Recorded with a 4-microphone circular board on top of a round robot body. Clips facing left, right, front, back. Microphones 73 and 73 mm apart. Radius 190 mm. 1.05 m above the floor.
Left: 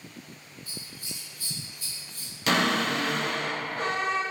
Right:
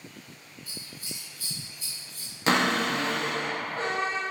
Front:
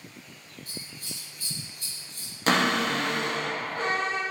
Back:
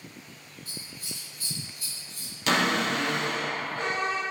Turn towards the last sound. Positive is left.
turn(degrees=-40)